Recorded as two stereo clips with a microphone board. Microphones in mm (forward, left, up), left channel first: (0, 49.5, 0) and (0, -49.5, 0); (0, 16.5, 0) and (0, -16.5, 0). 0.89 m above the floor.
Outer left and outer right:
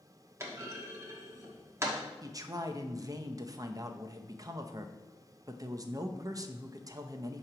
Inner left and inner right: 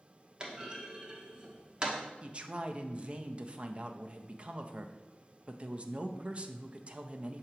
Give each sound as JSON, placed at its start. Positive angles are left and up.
{"t": 0.4, "sound": "a clunk", "side_deg": -30, "distance_m": 1.0}
{"t": 2.2, "sound": "a man speaking", "side_deg": -35, "distance_m": 0.5}